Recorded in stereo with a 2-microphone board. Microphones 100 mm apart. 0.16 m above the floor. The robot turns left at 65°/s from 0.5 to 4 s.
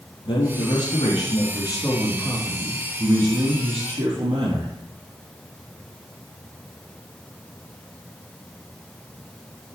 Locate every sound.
0.2 s a man speaking: 120° left, 4.5 m; by 4.7 s 110° right, 4.5 m